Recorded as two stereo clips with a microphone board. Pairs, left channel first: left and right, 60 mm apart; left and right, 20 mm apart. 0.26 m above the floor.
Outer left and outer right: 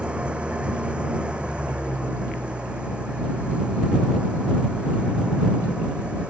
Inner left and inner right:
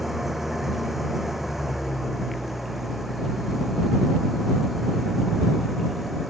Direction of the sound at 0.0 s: 20° right (ahead or behind).